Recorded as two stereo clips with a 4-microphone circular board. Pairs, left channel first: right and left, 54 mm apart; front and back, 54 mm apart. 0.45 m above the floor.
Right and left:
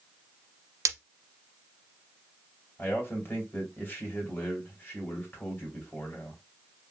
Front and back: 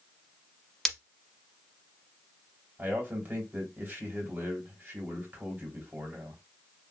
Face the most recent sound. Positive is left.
turn(degrees=-130)